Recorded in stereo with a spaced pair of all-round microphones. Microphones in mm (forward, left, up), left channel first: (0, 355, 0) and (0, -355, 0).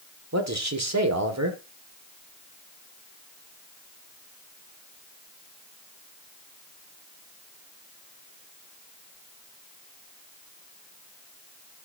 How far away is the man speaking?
About 1.7 m.